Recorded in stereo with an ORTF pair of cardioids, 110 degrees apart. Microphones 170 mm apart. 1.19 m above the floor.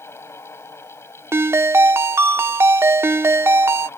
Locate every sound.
0.0 s a fan: 15° left
1.3 s a ringtone: 15° right